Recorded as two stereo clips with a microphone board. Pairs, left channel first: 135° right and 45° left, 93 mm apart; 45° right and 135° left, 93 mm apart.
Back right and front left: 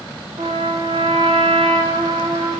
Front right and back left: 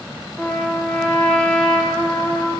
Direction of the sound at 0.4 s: 30° left.